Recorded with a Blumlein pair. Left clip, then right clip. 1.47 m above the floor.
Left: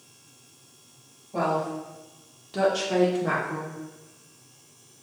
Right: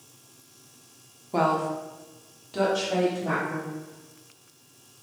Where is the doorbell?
I don't hear a doorbell.